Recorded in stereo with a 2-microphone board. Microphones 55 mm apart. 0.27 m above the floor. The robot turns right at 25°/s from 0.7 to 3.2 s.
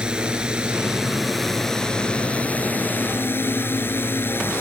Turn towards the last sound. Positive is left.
turn(degrees=45)